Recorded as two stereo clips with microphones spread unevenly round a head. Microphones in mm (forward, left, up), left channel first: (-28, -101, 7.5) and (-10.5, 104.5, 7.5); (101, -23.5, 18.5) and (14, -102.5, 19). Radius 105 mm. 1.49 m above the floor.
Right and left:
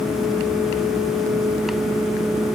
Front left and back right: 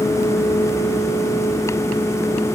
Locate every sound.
Only background noise.